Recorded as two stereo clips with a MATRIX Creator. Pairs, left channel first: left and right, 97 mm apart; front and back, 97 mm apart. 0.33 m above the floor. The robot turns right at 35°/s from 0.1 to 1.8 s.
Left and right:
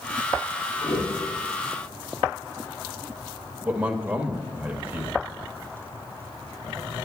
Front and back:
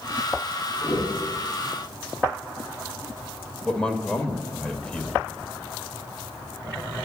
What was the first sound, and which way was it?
A whoosh, 35° left.